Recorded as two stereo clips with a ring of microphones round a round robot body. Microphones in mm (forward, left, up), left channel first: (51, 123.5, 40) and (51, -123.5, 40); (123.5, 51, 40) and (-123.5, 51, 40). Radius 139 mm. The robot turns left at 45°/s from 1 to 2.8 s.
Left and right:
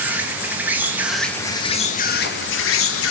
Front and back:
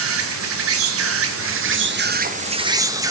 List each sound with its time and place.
0.0 s an insect: 175° right, 1.0 m; by 3.1 s 105° left, 1.0 m